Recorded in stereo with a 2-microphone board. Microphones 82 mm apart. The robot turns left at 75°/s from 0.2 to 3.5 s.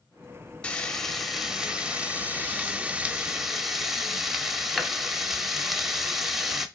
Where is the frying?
15° left (ahead or behind), 0.9 m; by 6.7 s 5° right (ahead or behind), 0.9 m.